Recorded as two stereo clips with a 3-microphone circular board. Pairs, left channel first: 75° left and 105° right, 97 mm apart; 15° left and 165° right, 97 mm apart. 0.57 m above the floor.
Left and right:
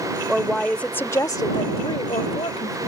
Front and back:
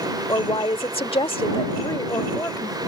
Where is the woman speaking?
20° right; by 2.8 s 75° left.